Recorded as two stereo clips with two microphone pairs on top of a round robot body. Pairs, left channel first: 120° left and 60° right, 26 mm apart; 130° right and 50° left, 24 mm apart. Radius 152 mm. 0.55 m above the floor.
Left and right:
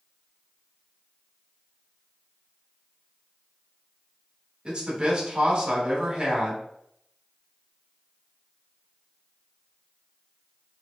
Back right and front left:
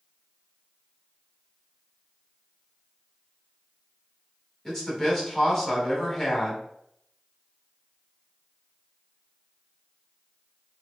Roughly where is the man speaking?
Ahead right.